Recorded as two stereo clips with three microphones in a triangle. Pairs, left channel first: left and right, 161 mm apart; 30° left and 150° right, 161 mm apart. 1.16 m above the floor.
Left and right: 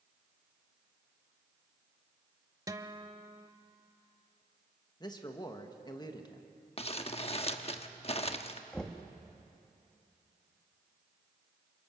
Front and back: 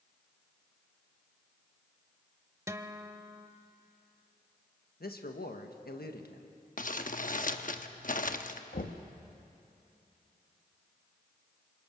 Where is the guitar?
110° right, 0.9 m.